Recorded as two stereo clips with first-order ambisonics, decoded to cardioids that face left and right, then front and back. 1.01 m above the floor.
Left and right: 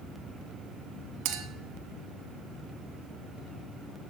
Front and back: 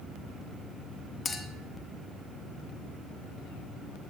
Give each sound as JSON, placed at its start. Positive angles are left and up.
{"t": 1.2, "sound": "a clink", "azimuth_deg": -75, "distance_m": 1.2}